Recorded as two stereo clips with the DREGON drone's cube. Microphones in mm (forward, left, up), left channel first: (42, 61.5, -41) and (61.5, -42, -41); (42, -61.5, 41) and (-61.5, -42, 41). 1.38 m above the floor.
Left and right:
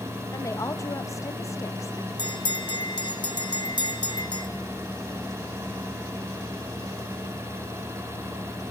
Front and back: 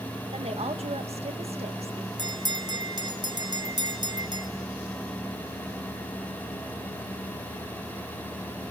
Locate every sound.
0.3 s a woman speaking: 160° left, 2.0 m
2.2 s a bell: 135° left, 2.0 m